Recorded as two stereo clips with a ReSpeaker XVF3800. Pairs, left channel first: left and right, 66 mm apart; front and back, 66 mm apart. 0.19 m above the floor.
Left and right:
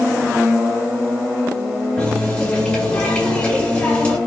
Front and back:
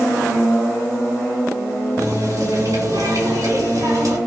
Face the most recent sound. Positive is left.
turn(degrees=165)